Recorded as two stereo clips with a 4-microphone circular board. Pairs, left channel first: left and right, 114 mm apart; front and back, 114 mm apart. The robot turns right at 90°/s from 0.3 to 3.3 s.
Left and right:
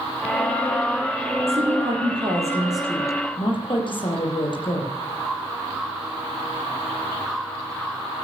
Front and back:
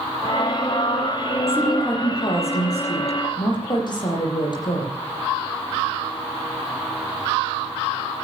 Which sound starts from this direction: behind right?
A woman speaking, at 1.5 s.